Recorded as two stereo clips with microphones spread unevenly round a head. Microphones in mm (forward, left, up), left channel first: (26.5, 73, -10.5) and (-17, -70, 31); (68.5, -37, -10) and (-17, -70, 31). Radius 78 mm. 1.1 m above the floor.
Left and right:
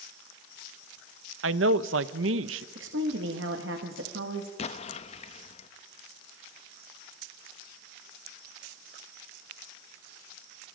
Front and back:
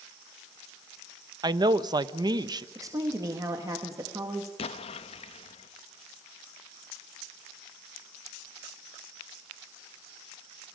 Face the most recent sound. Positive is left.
turn(degrees=25)